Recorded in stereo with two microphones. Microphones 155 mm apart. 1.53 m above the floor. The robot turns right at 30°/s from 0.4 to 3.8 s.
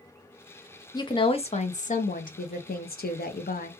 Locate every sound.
0.9 s a woman speaking: 25° left, 0.6 m; by 3.7 s 110° left, 0.6 m